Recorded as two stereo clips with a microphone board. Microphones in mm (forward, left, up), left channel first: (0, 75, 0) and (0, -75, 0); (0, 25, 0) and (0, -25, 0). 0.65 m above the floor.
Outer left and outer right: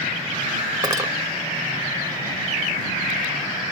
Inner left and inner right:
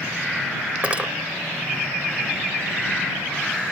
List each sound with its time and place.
0.8 s cutlery clinking: 25° right (ahead or behind)